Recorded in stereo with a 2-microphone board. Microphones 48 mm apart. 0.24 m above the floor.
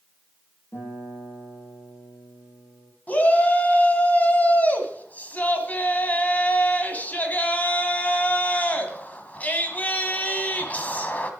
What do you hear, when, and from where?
0.7 s a guitar: 65° left (ahead or behind), 6.5 m
3.1 s a shout: 30° left (ahead or behind), 1.8 m